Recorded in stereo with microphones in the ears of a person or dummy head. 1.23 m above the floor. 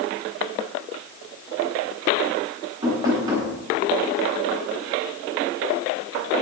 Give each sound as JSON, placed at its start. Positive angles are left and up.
{"t": 2.8, "sound": "knocking", "side_deg": -20, "distance_m": 8.5}